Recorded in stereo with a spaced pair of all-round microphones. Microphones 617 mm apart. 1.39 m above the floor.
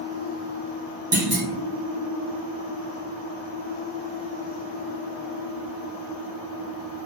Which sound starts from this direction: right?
A clunk, at 1.1 s.